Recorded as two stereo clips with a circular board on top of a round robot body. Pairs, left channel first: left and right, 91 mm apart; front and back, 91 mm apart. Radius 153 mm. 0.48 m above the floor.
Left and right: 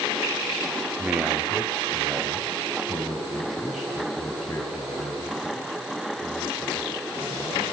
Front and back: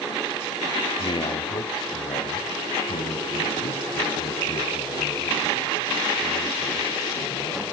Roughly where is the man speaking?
Ahead.